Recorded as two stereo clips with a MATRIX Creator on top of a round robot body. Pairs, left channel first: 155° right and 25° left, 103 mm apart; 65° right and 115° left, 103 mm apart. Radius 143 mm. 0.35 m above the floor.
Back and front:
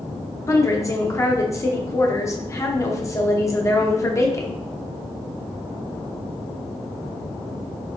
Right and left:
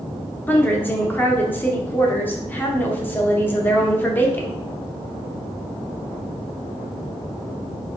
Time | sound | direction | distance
0.5 | a woman speaking | 125° right | 0.9 m